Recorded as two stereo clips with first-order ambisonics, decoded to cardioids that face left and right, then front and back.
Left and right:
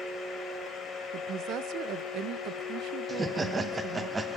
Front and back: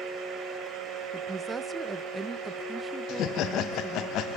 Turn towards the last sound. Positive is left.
turn(degrees=-20)